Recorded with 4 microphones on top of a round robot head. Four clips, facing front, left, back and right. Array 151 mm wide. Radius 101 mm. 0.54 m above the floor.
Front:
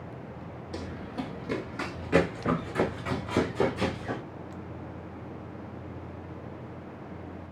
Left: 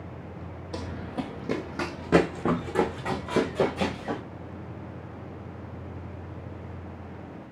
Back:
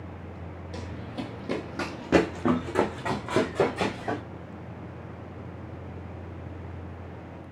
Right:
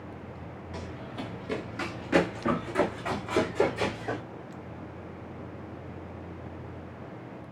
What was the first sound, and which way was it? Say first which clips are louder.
Running footsteps: left 6 dB, front 1 dB; 85° left.